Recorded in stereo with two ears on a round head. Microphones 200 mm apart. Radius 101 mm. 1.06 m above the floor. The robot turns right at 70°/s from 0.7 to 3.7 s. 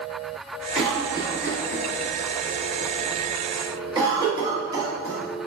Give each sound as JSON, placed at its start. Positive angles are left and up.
{"t": 0.8, "sound": "a cough", "side_deg": -5, "distance_m": 1.3}